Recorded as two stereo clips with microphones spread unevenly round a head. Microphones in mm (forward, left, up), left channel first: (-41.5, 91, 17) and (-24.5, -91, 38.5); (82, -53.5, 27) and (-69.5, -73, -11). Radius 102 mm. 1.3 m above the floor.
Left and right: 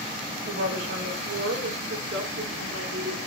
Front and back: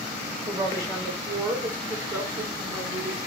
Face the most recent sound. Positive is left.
turn(degrees=-95)